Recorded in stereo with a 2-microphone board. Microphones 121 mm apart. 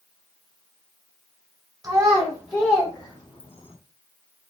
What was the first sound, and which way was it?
A child speaking, 25° right (ahead or behind).